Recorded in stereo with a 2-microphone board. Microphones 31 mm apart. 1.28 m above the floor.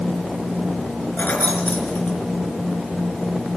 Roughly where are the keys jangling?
Left.